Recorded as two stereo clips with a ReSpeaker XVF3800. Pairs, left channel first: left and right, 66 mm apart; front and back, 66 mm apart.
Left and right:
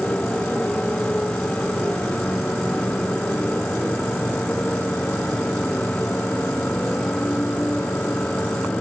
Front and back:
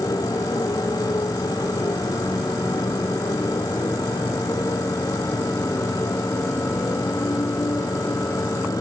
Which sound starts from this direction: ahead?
A motorcycle, at 0.0 s.